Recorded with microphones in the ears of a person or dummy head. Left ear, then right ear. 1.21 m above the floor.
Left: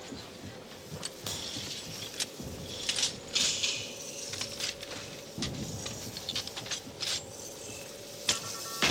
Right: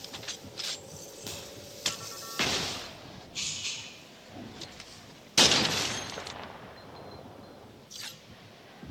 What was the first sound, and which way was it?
A crack, 20° left (ahead or behind).